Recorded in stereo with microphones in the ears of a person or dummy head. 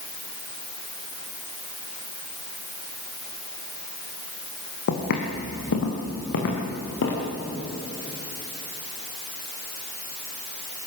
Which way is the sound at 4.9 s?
60° left (ahead or behind).